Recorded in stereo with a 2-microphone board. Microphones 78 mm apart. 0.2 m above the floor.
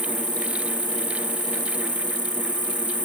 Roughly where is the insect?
Left.